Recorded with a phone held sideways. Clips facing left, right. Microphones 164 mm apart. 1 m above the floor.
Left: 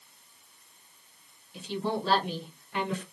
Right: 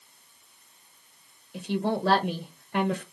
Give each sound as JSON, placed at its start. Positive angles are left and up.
{"t": 1.5, "sound": "a woman speaking", "side_deg": -50, "distance_m": 0.9}